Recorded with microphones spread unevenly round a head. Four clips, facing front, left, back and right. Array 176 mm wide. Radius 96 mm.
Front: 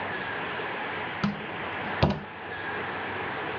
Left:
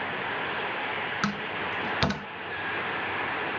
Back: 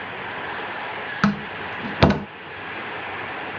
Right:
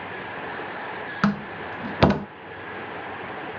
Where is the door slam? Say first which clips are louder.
Right 10 dB, back 11 dB; 165° right.